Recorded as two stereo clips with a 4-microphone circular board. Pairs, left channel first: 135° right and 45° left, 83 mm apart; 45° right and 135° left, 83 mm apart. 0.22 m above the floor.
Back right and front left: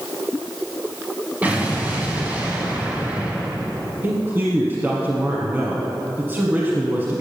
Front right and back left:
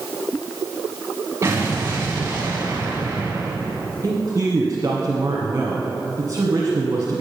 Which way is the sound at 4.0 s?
100° left.